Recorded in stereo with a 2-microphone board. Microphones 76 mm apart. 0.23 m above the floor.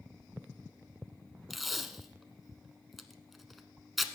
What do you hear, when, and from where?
1.5 s tape being pulled: centre (ahead or behind), 0.8 m